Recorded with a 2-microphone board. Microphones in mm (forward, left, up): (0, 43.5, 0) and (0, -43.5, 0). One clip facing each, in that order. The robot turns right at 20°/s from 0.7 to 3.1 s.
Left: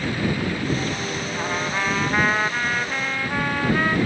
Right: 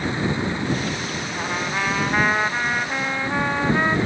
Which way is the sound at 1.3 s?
Centre (ahead or behind).